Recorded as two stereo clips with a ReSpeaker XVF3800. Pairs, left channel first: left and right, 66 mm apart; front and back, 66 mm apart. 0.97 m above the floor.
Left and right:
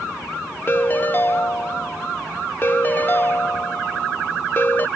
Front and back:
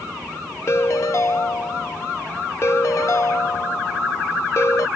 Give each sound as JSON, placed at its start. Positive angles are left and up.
{"t": 0.7, "sound": "a ringtone", "azimuth_deg": 35}